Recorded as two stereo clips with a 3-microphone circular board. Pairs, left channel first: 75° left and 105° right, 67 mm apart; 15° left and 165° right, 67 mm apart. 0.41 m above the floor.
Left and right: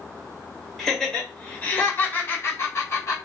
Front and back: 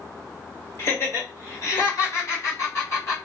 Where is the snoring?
I don't hear snoring.